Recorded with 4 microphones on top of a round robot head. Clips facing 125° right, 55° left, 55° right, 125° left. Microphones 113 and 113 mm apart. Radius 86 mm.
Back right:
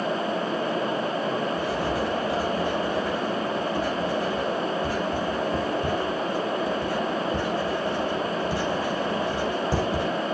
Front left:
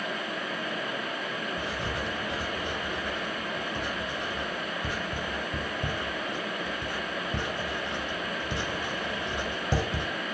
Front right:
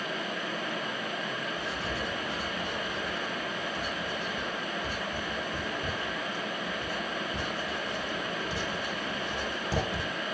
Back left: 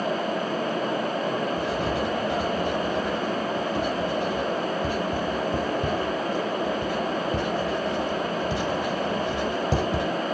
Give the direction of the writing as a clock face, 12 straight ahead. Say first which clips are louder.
Back right 8 dB, back left 9 dB; 8 o'clock.